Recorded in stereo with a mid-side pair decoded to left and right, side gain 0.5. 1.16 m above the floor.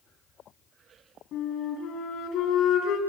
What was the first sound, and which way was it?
A flute, 70° left.